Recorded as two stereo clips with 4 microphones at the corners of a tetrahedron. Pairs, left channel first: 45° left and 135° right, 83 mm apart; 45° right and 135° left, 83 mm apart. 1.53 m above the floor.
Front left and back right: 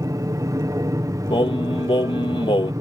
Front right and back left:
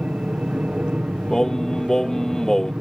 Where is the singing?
35° left.